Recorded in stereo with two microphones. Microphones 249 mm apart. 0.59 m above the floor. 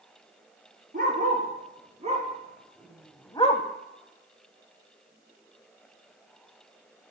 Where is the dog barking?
35° right (ahead or behind), 3 m; by 3.6 s 40° left (ahead or behind), 0.6 m.